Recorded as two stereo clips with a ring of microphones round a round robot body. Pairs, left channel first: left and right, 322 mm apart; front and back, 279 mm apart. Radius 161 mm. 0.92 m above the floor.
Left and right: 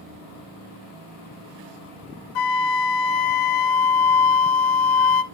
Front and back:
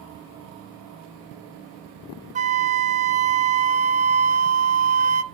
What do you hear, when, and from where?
2.4 s a flute: 115° left, 0.8 m